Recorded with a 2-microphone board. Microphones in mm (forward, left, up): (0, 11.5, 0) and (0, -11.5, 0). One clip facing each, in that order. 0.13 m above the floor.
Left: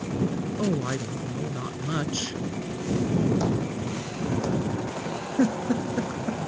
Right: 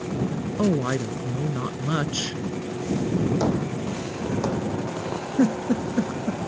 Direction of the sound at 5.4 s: 5° left (ahead or behind).